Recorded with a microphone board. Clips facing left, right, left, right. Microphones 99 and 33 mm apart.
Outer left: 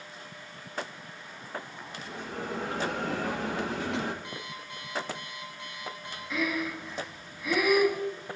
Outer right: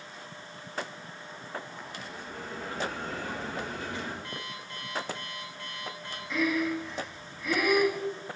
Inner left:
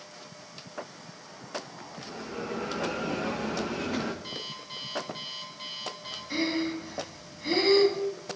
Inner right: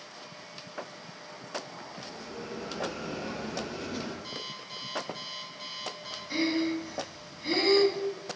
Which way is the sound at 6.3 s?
5° left (ahead or behind).